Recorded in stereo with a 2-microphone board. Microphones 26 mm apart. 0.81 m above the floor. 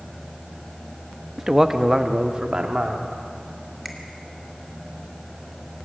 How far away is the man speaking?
About 0.8 m.